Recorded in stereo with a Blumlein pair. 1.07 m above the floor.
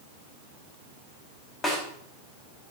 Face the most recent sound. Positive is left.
turn(degrees=15)